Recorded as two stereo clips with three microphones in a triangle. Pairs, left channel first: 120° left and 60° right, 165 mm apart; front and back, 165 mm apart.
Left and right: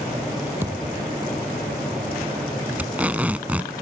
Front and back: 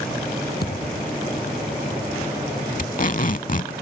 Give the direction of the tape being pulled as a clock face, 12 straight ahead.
11 o'clock.